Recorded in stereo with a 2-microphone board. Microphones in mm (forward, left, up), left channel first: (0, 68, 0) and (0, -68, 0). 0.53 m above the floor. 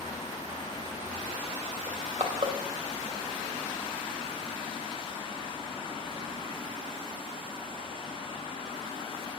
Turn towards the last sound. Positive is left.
turn(degrees=-50)  # may be behind; listen again after turning